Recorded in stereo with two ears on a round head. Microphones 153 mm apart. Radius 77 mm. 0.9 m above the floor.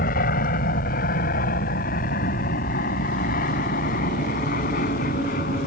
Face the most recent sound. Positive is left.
turn(degrees=55)  # may be behind; listen again after turning